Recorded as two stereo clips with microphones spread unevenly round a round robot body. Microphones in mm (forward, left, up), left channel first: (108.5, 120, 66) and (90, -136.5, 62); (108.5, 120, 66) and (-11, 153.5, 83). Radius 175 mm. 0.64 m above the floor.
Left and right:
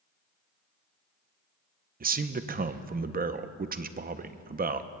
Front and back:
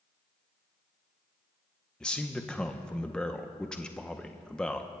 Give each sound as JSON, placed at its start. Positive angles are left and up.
{"t": 2.0, "sound": "a man speaking", "azimuth_deg": -80, "distance_m": 0.7}